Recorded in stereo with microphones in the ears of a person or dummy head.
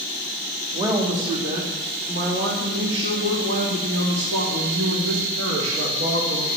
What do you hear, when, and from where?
0.7 s a woman speaking: 25° right (ahead or behind), 2 m; by 6.6 s 85° right, 3.5 m